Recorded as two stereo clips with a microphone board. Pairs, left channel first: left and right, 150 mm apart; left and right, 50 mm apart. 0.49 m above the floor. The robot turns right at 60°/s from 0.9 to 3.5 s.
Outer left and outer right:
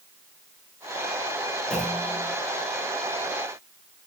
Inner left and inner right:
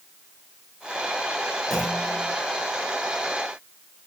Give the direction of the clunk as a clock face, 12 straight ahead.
6 o'clock.